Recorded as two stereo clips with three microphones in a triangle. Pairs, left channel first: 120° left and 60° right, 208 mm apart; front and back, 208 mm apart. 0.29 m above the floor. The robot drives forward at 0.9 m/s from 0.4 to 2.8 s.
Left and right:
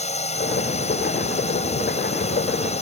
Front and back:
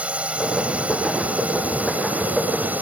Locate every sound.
0.0 s a drone: 100° left; by 2.8 s 105° left